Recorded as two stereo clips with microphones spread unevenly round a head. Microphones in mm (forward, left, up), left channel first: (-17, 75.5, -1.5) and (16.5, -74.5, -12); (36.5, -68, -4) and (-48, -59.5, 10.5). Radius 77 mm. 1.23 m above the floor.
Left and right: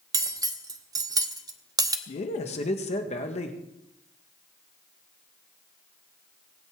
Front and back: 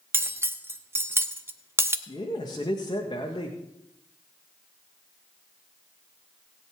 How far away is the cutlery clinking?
About 0.8 m.